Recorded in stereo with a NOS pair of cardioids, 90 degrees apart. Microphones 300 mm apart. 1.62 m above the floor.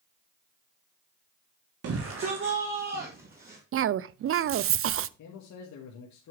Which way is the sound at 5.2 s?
70° left.